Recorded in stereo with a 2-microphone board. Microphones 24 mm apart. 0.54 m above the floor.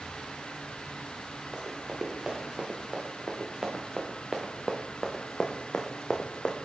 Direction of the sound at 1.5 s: 20° right (ahead or behind).